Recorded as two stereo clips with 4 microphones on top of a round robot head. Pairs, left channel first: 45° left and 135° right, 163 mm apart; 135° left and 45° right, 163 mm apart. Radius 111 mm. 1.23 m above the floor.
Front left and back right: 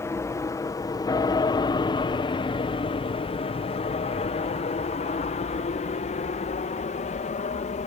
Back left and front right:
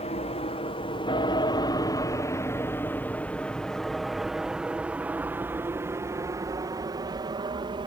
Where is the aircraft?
110° left; by 7.9 s 10° left.